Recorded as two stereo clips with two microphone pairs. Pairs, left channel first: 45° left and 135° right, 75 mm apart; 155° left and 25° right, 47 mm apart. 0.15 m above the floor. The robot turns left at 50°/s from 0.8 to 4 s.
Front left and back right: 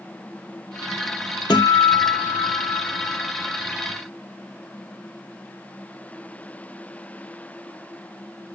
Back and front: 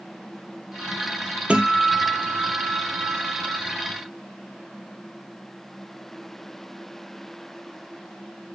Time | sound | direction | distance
1.5 | a guitar | 40° left | 1.2 m